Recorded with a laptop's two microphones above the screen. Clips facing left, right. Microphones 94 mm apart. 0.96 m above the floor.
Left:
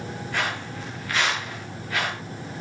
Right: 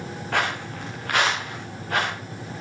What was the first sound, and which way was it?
Footsteps, 65° right (ahead or behind).